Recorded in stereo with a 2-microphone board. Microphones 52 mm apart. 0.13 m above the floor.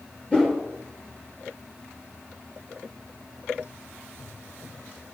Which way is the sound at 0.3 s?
20° left (ahead or behind).